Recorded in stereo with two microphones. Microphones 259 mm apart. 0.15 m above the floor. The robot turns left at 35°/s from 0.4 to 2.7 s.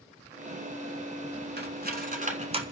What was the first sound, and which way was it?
Cutlery clinking, 40° right (ahead or behind).